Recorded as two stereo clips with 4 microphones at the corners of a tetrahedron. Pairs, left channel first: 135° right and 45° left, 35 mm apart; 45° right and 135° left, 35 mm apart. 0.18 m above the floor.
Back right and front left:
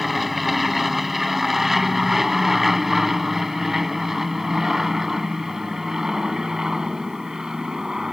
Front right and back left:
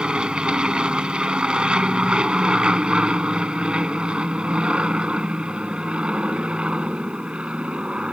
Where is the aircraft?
130° left; by 8.1 s 110° left.